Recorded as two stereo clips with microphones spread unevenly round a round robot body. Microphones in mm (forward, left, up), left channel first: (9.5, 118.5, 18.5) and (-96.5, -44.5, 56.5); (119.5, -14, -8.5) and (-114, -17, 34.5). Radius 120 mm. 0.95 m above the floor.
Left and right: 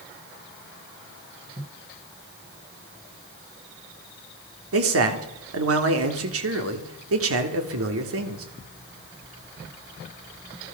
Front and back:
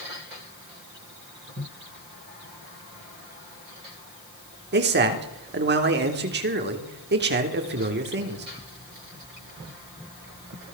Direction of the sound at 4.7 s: 130° right.